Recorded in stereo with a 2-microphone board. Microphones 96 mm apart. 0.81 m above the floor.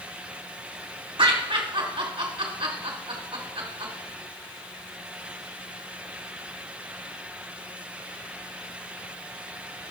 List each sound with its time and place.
1.2 s laughter: 70° right (ahead or behind), 3 m